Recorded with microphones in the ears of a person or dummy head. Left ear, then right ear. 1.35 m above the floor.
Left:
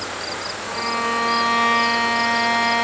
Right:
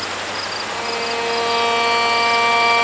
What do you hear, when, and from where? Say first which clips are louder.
0.7 s a violin: left 3 dB; 55° left (ahead or behind), 2 m